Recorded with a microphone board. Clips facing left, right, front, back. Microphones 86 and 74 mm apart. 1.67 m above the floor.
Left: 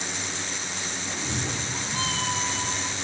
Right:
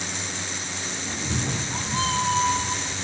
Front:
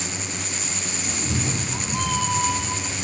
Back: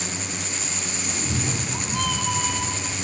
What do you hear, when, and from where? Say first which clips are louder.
1.1 s a cat meowing: right 3 dB, front 1 dB; 60° right, 1.3 m